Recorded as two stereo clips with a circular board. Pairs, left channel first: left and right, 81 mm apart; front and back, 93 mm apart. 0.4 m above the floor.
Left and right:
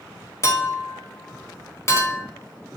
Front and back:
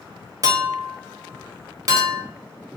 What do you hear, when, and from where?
0.4 s a clink: 135° left, 0.8 m